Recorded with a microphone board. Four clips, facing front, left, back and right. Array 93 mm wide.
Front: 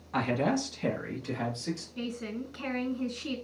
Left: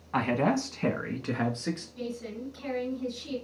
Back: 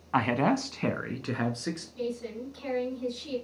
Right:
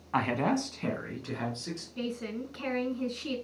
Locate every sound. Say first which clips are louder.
0.1 s a man speaking: left 2 dB, back 3 dB; 170° right, 1.2 m; by 1.9 s 145° left, 2 m
2.0 s a woman speaking: right 1 dB, back 2 dB; 45° right, 3 m